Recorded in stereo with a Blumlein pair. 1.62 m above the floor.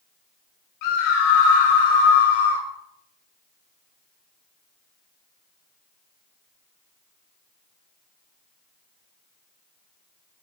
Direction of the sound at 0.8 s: 45° left.